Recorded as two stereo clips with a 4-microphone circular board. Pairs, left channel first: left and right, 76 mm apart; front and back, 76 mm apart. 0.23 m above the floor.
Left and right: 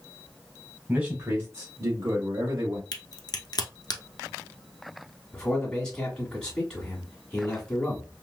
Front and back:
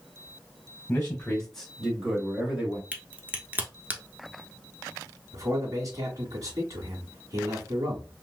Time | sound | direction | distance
0.9 | a man speaking | 45° right | 1.2 m
2.9 | a crack | 115° left | 0.8 m
5.3 | a man speaking | 165° left | 1.6 m